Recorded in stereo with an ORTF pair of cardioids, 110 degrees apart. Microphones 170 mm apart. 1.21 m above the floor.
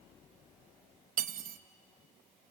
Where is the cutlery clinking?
55° right, 0.8 m.